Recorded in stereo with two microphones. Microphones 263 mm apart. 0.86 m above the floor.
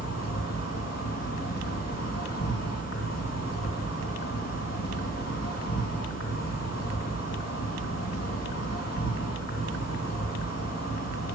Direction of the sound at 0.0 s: 70° left (ahead or behind).